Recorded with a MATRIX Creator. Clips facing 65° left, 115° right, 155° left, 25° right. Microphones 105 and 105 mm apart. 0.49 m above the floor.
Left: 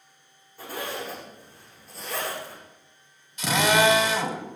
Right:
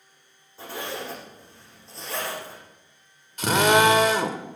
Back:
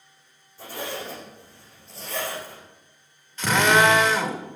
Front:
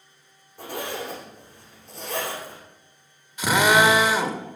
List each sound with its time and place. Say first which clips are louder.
0.6 s a zipper: even, front 2 dB; 50° right, 7 m
3.4 s a drill: right 3 dB, front 1 dB; 100° right, 1.7 m